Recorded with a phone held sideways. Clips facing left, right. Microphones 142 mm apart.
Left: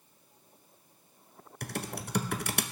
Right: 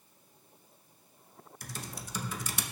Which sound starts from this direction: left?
Typing on a keyboard, at 1.6 s.